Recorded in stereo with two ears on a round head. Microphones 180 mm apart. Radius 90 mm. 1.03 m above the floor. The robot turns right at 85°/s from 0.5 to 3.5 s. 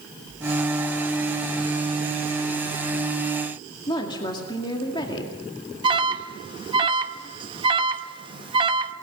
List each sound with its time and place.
3.9 s a woman speaking: 25° left (ahead or behind), 2 m
5.8 s an alarm: 25° right (ahead or behind), 1.0 m